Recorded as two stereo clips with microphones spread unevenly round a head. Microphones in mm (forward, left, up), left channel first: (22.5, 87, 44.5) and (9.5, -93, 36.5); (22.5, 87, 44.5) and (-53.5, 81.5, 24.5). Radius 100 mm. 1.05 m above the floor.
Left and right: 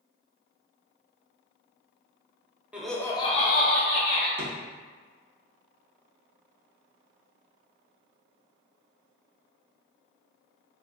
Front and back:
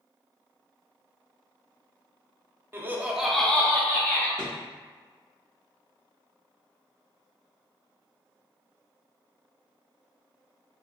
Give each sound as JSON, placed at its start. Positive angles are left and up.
{"t": 2.7, "sound": "laughter", "azimuth_deg": -170, "distance_m": 0.5}
{"t": 4.4, "sound": "a drawer", "azimuth_deg": -75, "distance_m": 0.6}